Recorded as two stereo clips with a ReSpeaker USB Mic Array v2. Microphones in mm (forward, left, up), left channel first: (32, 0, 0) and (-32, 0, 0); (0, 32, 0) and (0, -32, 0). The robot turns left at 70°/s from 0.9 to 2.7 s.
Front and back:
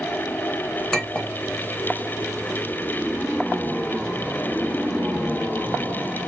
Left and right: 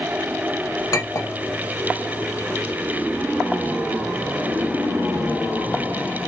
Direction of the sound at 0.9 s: 85° left.